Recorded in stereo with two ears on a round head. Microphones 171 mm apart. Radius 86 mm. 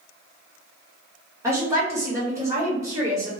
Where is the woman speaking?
15° right (ahead or behind), 1.6 m.